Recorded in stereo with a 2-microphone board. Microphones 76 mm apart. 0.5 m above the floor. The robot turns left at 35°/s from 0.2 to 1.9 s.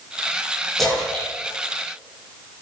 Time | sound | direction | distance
0.8 | a splash | centre (ahead or behind) | 8 m